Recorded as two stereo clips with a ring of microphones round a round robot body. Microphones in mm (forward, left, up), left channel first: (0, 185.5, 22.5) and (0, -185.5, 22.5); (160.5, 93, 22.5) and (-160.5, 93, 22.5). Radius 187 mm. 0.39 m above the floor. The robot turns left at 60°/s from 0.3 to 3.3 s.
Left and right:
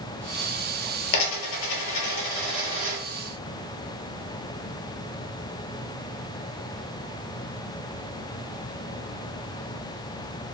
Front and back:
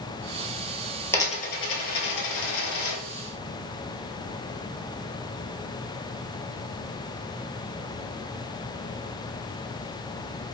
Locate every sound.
1.1 s a dropped coin: 85° left, 1.0 m; by 3.0 s 30° right, 1.0 m